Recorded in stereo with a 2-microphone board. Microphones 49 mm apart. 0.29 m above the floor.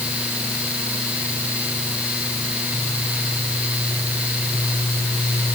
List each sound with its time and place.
Only background noise.